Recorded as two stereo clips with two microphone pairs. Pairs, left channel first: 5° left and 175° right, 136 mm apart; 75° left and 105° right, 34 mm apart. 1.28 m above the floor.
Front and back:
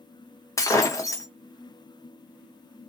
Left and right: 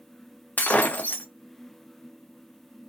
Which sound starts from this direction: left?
Breaking glass, at 0.6 s.